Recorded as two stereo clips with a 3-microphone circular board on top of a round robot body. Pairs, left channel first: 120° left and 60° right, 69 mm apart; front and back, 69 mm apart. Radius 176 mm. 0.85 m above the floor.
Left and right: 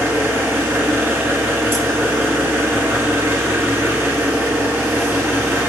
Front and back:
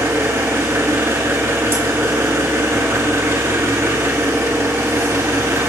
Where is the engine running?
125° right, 1.3 m.